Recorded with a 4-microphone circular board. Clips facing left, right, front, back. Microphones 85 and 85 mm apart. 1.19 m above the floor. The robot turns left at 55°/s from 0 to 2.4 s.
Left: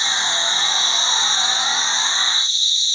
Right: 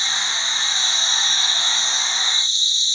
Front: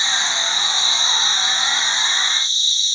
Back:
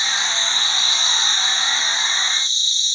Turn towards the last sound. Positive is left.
turn(degrees=-25)